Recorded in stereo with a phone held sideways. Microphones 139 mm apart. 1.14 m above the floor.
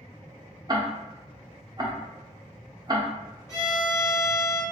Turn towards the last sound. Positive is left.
turn(degrees=25)  # may be behind; listen again after turning